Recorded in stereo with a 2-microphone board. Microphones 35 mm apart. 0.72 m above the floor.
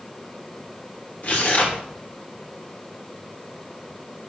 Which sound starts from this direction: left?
Tearing paper, at 1.2 s.